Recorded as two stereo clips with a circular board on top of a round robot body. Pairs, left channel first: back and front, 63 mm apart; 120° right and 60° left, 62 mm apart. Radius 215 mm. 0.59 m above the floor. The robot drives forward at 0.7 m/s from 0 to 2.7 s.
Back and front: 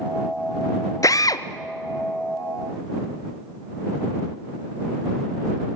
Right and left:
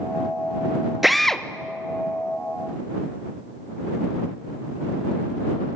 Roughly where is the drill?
Behind left.